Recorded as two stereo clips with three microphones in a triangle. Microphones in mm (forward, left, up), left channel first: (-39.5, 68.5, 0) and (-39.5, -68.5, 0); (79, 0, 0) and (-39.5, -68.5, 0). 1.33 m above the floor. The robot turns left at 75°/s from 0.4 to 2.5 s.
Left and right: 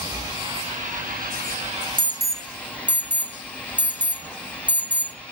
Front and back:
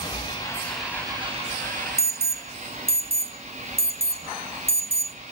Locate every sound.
0.0 s an engine running: 30° right, 5.5 m; by 5.3 s 170° left, 5.5 m
2.0 s an alarm: 130° right, 0.7 m; by 5.2 s 170° right, 0.7 m